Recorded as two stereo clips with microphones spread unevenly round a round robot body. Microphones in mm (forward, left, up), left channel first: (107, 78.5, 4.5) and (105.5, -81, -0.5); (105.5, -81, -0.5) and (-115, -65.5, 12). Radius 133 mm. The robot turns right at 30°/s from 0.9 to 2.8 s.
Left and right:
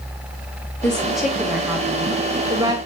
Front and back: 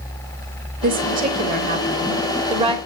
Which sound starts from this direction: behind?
A woman speaking, at 0.8 s.